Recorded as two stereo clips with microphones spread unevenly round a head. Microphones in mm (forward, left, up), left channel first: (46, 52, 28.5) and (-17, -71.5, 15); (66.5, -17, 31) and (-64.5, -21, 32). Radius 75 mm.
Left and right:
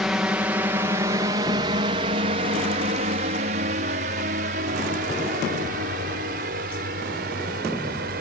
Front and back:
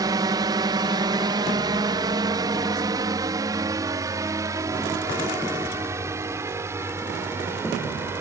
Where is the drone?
165° left; by 8.2 s 110° right.